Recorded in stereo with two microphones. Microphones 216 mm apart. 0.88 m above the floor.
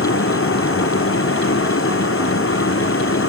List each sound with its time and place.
0.0 s a vehicle: 85° left